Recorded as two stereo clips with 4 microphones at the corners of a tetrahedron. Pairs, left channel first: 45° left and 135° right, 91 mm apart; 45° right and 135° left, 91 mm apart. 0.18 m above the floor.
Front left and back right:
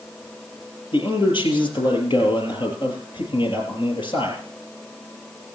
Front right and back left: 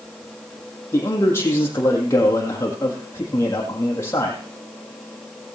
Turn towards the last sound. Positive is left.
turn(degrees=15)